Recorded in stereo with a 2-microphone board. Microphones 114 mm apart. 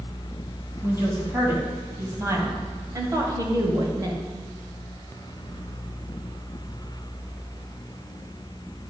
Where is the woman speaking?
20° right (ahead or behind), 3 m; by 4.2 s 30° right (ahead or behind), 1.4 m.